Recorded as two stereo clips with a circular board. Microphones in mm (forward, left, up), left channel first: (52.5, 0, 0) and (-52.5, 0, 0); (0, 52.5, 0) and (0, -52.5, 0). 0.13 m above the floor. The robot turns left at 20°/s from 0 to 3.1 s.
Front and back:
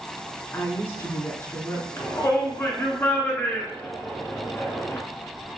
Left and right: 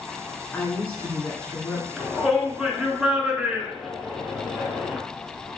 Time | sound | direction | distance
0.5 | a woman speaking | 40° left | 1.1 m
2.0 | a shout | 5° left | 1.1 m